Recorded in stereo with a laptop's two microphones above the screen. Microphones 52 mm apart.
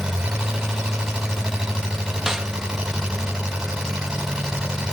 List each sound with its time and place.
0.0 s an engine running: 15° right (ahead or behind), 5.5 m
2.3 s a snare drum: 10° right (ahead or behind), 1.6 m